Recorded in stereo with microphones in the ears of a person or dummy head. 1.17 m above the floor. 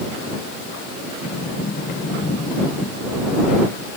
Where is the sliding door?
40° left (ahead or behind).